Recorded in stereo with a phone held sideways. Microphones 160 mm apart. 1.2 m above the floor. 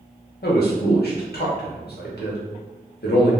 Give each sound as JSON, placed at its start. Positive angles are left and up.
{"t": 0.4, "sound": "a man speaking", "side_deg": 75, "distance_m": 0.8}